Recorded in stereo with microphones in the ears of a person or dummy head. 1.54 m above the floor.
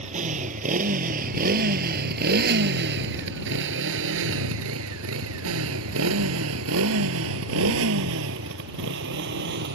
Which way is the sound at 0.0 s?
30° right (ahead or behind).